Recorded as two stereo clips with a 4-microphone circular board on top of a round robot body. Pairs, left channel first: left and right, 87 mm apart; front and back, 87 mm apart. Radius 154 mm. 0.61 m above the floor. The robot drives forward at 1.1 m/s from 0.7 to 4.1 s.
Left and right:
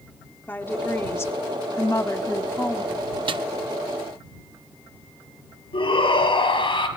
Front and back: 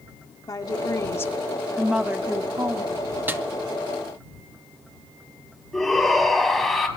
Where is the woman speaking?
30° left, 1.7 m; by 3.1 s 155° left, 1.9 m.